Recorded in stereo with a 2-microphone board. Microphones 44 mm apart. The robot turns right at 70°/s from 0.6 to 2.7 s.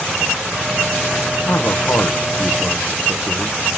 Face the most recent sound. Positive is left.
turn(degrees=-175)